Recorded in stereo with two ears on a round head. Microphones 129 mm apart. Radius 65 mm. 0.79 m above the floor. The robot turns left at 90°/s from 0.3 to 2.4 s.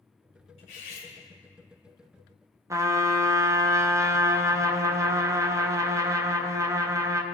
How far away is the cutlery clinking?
About 1.9 m.